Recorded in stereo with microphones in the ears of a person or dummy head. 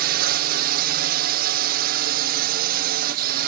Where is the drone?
55° right (ahead or behind).